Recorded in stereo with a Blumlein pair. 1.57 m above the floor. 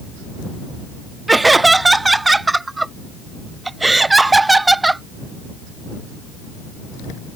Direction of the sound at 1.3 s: 10° right.